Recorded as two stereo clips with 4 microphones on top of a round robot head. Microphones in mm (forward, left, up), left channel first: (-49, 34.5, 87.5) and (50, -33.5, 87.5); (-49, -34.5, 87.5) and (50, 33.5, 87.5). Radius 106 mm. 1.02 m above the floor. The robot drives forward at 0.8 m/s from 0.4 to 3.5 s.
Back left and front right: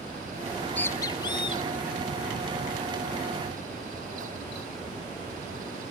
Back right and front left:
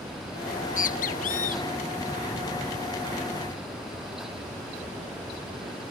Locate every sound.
0.5 s a bird: 100° right; by 4.9 s 175° right